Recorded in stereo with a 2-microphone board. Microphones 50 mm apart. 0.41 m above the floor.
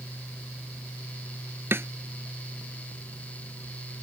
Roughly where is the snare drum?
Right.